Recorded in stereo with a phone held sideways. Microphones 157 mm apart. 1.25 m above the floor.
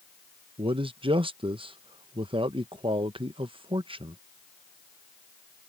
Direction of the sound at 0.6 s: 35° right (ahead or behind).